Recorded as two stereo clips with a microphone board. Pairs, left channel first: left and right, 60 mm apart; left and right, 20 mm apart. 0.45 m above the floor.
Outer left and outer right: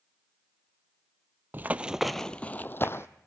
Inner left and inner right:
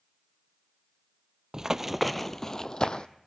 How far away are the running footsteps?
About 0.5 m.